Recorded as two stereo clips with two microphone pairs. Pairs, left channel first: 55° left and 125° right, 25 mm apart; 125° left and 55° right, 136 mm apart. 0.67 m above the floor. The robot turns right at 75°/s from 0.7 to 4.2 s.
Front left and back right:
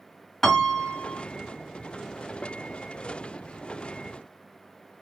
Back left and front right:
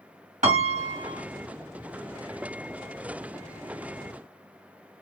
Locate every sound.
0.4 s a piano: 30° right, 1.7 m; by 1.2 s 10° left, 1.7 m